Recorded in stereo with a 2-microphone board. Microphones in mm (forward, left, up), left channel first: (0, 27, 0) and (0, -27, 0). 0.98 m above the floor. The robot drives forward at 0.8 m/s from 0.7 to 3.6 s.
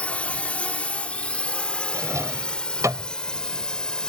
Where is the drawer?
70° right (ahead or behind); by 3.1 s 85° right.